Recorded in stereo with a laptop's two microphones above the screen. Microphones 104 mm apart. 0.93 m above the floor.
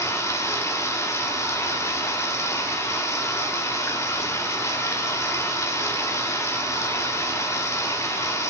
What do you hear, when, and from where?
0.0 s running water: 25° left (ahead or behind), 1.0 m